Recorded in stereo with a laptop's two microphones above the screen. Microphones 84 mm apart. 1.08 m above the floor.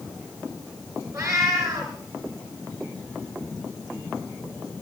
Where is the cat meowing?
35° right (ahead or behind), 6 m.